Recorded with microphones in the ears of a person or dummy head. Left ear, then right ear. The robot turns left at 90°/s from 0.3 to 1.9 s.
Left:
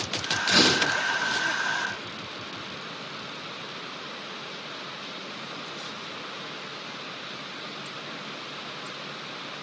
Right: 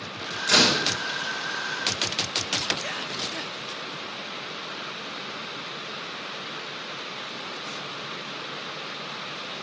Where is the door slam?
50° right (ahead or behind), 5.5 m; by 0.8 s 20° right (ahead or behind), 5.5 m.